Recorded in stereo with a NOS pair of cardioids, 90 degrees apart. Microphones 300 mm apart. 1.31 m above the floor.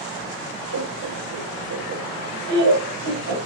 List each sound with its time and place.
0.7 s laughter: 65° right, 4 m; by 3.4 s 75° right, 5.5 m